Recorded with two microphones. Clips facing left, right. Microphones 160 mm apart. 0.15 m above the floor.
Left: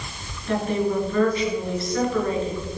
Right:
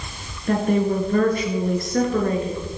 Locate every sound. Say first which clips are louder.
0.5 s a woman speaking: right 3 dB; 50° right (ahead or behind), 1.6 m